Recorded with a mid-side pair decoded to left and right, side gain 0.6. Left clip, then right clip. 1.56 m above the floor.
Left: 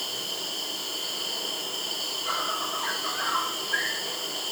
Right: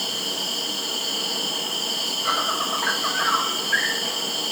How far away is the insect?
About 2.5 m.